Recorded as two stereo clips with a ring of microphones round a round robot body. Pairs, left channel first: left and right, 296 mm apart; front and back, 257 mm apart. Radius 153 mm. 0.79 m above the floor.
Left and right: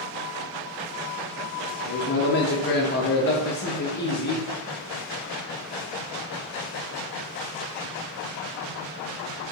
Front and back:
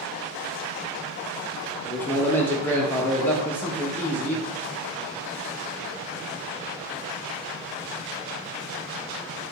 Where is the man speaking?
75° left, 0.6 m.